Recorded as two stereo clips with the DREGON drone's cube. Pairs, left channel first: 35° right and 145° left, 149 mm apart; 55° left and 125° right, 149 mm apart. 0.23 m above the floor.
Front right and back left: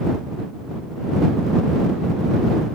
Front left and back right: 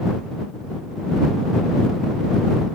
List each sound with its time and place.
Only background noise.